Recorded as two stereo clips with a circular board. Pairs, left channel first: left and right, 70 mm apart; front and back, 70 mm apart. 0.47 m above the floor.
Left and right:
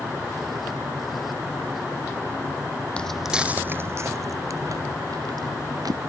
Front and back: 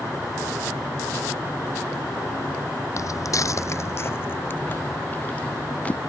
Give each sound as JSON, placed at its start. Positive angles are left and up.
{"t": 3.0, "sound": "footsteps", "azimuth_deg": 20}